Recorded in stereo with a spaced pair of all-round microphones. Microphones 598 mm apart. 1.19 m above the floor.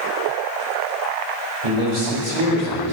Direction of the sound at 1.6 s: 80° right.